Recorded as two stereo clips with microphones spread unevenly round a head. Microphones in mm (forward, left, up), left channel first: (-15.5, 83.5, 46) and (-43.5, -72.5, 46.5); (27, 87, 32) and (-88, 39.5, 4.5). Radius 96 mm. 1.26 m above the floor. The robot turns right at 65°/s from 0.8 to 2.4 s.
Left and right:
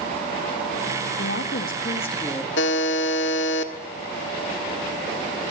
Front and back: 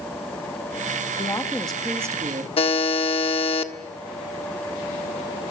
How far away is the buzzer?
About 1.6 m.